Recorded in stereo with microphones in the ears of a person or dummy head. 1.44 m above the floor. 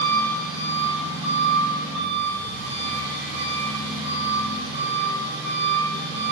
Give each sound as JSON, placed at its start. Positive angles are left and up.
{"t": 0.0, "sound": "an engine running", "side_deg": -60, "distance_m": 3.5}